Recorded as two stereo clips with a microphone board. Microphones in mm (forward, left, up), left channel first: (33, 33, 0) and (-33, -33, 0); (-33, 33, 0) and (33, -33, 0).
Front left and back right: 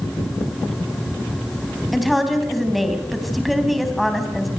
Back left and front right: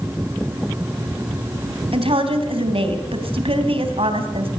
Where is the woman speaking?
45° right, 3.5 m.